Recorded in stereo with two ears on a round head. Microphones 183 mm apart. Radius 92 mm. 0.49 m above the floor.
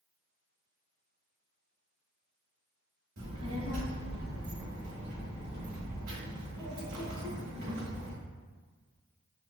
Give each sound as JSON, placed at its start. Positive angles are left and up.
{"t": 3.2, "sound": "a child speaking", "side_deg": -80, "distance_m": 1.4}